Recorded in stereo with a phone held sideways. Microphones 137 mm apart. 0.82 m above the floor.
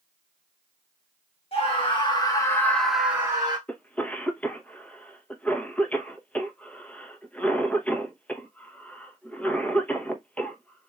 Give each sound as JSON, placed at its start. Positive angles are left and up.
{"t": 1.5, "sound": "a scream", "side_deg": 45, "distance_m": 1.5}
{"t": 3.7, "sound": "a cough", "side_deg": 10, "distance_m": 0.8}